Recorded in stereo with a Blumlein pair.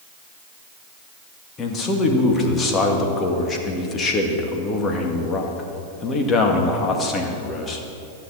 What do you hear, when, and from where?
1.6 s a man speaking: 20° left, 2 m